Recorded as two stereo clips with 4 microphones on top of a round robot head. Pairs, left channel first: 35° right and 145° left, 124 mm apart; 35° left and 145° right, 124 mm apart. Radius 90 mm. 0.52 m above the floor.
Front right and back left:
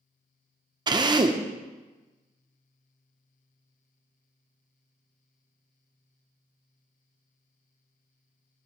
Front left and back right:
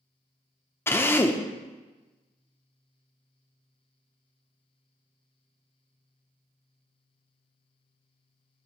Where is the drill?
100° left, 1.0 m.